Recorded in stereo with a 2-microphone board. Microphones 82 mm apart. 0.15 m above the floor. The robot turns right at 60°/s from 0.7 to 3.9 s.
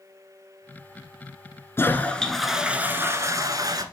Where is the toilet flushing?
140° left, 1.0 m; by 3.8 s 95° right, 1.0 m.